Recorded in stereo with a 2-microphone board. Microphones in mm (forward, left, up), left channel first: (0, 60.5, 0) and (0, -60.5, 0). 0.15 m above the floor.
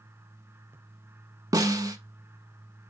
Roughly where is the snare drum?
Right.